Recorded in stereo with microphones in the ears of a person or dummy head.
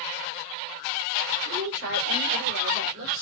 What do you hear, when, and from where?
1.4 s a woman speaking: 55° right (ahead or behind), 6 m; by 3.2 s 60° right (ahead or behind), 5 m